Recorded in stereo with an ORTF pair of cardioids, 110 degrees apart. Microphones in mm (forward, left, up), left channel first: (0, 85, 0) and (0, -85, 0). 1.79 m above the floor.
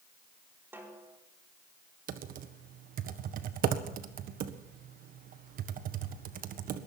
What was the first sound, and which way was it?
A snare drum, 15° right.